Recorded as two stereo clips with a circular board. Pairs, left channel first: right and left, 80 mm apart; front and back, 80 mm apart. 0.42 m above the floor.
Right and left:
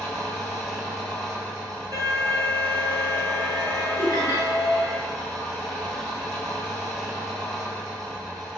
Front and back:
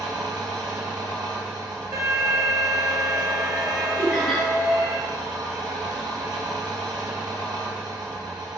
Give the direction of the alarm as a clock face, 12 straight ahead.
8 o'clock.